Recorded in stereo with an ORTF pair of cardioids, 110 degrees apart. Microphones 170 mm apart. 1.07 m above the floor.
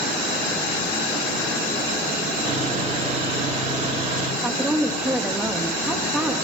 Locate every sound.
2.5 s sawing: 35° right, 1.4 m
4.4 s a woman speaking: 5° right, 1.1 m